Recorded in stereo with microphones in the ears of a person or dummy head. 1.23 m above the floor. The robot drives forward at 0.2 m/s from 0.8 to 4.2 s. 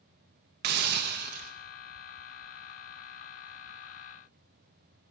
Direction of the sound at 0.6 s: 50° right (ahead or behind).